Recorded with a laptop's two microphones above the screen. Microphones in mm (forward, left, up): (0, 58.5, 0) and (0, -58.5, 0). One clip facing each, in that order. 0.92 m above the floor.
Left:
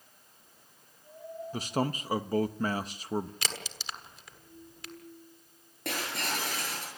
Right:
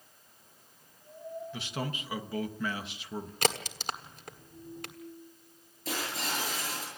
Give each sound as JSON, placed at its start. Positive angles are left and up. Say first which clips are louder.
{"t": 1.5, "sound": "a man speaking", "louder": "left 10 dB", "side_deg": 40, "distance_m": 0.9}
{"t": 3.4, "sound": "a crack", "louder": "right 9 dB", "side_deg": -45, "distance_m": 1.4}
{"t": 5.8, "sound": "breaking glass", "louder": "left 1 dB", "side_deg": 60, "distance_m": 7.5}